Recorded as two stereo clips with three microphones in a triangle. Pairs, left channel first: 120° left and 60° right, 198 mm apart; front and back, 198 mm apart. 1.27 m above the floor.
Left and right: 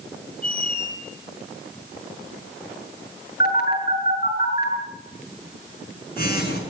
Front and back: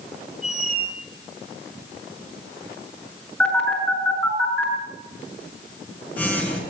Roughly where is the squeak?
Behind left.